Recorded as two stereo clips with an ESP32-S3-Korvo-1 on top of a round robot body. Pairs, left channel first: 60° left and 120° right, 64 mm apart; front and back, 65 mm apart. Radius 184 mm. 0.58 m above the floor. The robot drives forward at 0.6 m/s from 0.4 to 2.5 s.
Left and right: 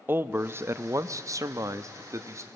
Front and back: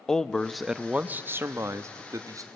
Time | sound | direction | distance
0.1 | a man speaking | 80° right | 0.8 m